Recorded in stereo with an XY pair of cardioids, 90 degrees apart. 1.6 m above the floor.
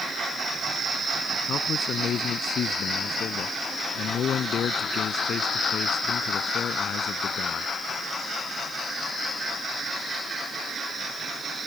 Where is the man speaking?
65° left.